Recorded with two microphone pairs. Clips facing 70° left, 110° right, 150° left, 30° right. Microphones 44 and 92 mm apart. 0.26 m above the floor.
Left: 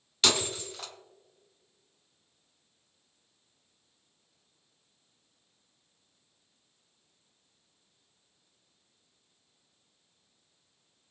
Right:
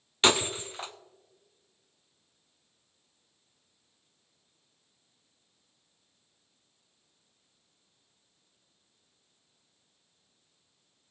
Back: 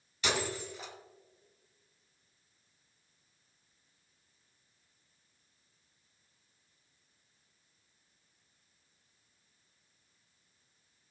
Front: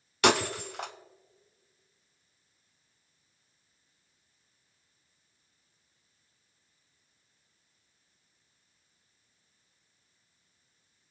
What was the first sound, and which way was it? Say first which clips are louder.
Breaking glass: right 3 dB, front 9 dB; 45° right.